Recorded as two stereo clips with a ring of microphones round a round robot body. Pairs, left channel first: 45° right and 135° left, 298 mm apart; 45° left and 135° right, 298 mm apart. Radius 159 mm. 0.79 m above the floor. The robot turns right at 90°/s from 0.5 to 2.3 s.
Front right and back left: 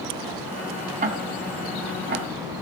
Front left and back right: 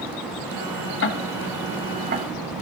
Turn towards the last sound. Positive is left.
turn(degrees=-165)